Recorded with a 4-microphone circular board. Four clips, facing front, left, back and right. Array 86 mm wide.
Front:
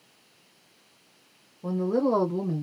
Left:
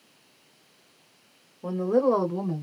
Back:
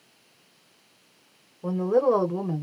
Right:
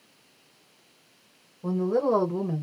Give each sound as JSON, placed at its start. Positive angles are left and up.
{"t": 1.6, "sound": "a woman speaking", "azimuth_deg": 140, "distance_m": 1.5}